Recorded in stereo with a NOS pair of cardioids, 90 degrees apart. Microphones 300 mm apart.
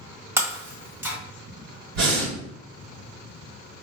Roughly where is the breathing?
Ahead right.